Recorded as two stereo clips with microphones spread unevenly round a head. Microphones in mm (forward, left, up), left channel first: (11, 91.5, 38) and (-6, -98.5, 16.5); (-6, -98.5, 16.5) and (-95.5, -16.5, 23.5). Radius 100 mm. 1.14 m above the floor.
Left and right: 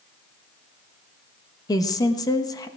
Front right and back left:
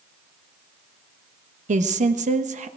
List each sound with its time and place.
1.7 s a woman speaking: 160° left, 1.1 m